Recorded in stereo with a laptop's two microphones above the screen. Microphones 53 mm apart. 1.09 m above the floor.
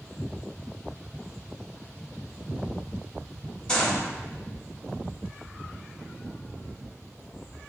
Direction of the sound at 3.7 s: 15° left (ahead or behind).